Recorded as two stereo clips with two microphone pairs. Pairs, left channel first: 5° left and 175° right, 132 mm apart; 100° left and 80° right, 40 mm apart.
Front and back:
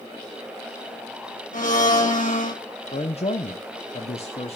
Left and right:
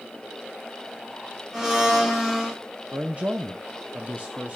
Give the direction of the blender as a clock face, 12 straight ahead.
12 o'clock.